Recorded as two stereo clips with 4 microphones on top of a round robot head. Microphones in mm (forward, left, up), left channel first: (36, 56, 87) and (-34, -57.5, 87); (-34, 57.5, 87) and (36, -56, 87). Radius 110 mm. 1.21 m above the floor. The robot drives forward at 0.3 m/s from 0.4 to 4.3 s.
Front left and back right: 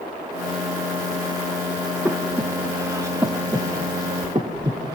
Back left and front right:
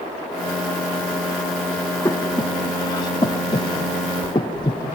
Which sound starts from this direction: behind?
Breathing, at 2.0 s.